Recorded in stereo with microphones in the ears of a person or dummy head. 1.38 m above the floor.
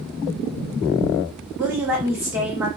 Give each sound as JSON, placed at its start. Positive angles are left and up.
{"t": 1.6, "sound": "a woman speaking", "side_deg": -10, "distance_m": 1.4}